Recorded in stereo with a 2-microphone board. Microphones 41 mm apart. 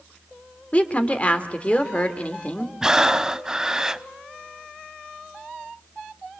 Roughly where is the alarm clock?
I don't hear an alarm clock.